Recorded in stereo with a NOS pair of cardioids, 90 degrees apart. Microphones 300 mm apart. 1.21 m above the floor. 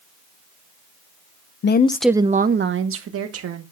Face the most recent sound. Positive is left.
turn(degrees=-55)